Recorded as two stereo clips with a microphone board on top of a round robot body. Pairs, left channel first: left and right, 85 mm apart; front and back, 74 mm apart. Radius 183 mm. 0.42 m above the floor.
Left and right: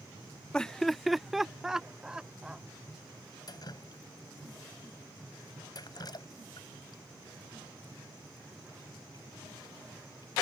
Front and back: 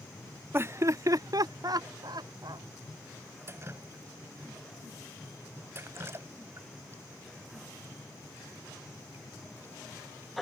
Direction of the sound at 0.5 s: 160° left.